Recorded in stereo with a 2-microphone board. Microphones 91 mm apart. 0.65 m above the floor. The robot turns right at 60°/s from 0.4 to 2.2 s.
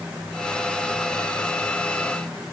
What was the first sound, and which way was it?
Only background noise.